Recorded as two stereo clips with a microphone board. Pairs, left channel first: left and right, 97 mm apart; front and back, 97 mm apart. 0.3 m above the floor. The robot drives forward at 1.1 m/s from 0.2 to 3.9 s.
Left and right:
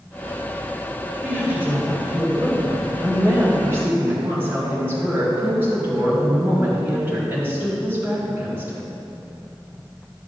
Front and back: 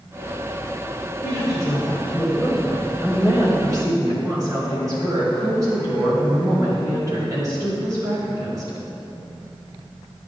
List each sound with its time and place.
1.2 s a woman speaking: 25° right, 2 m; by 8.8 s 150° right, 2 m